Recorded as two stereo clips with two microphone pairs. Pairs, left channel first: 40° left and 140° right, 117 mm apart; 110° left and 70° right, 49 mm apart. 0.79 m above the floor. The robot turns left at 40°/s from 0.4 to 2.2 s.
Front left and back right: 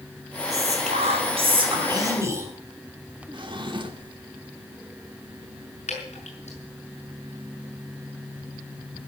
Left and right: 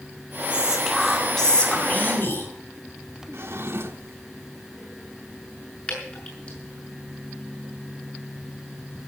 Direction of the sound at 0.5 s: 140° right.